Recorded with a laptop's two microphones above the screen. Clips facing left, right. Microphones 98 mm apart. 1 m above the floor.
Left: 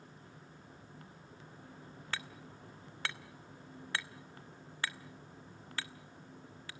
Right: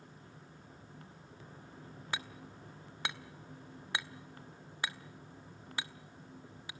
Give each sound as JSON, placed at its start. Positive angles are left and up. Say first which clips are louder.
{"t": 2.1, "sound": "hammering", "louder": "right 1 dB", "side_deg": -15, "distance_m": 1.1}